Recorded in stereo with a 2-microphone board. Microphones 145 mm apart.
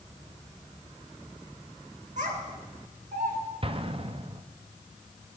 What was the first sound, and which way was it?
A child speaking, 60° right (ahead or behind).